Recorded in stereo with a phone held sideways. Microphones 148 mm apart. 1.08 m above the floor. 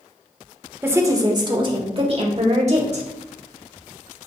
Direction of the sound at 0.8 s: 15° right (ahead or behind).